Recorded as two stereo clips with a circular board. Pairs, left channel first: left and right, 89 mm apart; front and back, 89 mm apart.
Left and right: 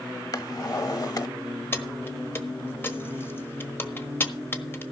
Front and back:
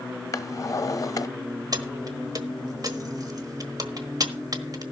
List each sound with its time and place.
0.3 s a drawer: 50° left, 0.8 m
1.7 s keys jangling: 150° left, 1.3 m